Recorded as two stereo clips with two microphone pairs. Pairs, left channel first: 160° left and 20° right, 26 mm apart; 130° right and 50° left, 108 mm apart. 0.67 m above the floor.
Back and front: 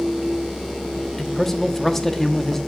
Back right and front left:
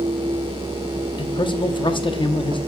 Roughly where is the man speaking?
Behind right.